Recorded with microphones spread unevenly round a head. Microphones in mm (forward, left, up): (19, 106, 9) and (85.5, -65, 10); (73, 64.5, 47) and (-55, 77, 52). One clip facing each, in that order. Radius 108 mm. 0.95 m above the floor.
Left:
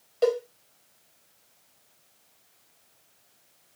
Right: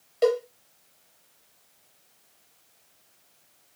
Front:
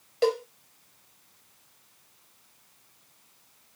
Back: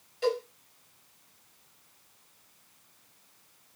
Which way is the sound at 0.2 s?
5° left.